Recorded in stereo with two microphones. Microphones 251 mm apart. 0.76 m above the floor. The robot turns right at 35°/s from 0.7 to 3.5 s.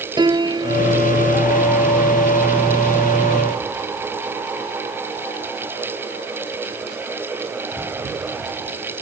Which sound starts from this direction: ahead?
A piano, at 0.2 s.